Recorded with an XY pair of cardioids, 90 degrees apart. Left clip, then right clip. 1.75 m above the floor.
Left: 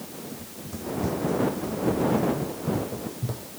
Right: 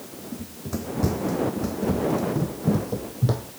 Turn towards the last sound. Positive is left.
turn(degrees=-70)